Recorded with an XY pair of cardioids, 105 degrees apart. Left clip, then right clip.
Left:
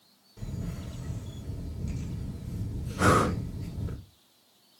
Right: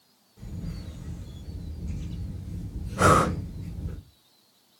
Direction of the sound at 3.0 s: 45° right.